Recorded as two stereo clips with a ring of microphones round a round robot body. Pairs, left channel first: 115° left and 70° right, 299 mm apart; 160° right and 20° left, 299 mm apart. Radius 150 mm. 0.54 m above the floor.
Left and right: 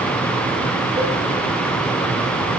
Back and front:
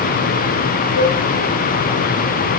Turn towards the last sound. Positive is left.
turn(degrees=-140)